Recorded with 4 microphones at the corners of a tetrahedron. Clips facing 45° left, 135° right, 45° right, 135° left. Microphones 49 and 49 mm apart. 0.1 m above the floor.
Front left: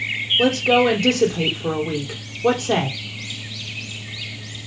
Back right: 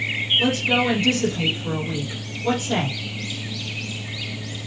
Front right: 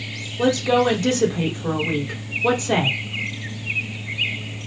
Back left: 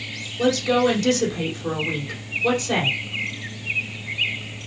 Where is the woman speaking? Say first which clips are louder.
Front left 6 dB, front right 1 dB; 25° left, 4.5 m.